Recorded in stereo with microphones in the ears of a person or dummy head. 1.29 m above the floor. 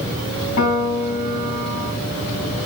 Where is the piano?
55° left (ahead or behind), 2 m.